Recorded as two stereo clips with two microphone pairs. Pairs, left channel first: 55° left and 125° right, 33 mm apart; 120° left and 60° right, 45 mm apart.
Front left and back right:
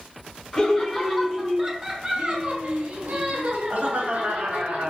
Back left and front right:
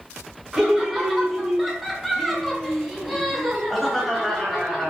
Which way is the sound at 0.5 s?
10° left.